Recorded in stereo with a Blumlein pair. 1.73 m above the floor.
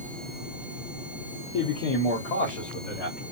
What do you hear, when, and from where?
1.5 s a man speaking: 35° left, 0.9 m; by 3.2 s 45° left, 1.7 m